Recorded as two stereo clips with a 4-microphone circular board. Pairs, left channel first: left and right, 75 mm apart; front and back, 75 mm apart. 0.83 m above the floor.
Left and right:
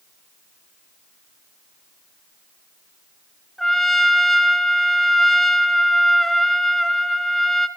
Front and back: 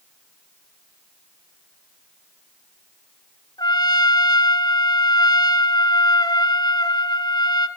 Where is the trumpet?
Straight ahead, 1.8 m.